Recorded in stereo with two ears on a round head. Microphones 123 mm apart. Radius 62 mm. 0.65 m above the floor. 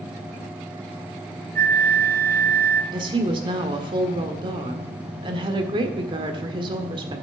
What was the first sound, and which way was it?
A flute, 70° right (ahead or behind).